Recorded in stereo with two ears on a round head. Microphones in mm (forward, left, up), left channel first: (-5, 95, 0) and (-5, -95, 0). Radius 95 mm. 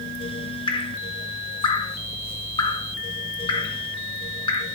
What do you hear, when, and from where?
0.7 s dripping: 25° left (ahead or behind), 1.0 m